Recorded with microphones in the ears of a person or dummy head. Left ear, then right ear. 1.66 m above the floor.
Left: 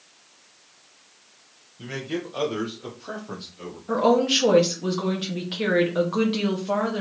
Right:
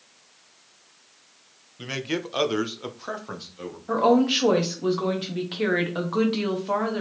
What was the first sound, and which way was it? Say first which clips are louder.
A man speaking: right 2 dB; 60° right (ahead or behind).